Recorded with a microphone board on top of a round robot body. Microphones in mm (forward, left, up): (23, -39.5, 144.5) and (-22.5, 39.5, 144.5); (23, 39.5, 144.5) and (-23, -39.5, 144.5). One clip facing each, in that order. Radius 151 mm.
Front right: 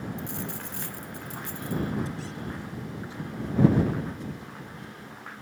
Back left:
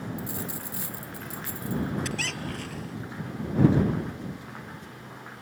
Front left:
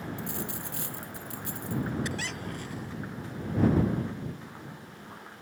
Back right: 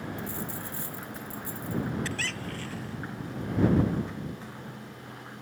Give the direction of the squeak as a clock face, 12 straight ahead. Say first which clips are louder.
Back left 2 dB, even; 8 o'clock.